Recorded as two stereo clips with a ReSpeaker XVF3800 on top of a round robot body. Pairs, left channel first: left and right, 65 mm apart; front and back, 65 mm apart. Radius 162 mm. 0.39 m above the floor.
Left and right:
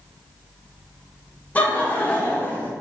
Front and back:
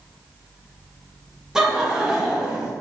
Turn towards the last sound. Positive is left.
turn(degrees=110)